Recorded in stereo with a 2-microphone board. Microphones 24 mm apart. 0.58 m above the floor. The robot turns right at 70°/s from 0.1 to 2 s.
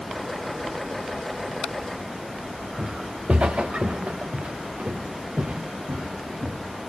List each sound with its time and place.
2.8 s footsteps: 60° right (ahead or behind), 3.5 m; by 6.6 s 70° right (ahead or behind), 5 m